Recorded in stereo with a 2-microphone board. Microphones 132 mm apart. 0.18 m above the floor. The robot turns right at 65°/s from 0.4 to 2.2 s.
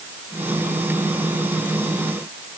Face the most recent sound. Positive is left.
No sound to turn to.